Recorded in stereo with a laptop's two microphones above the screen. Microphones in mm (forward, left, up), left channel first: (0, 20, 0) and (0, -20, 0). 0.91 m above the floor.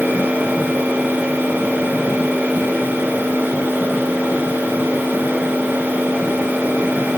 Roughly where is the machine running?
Right.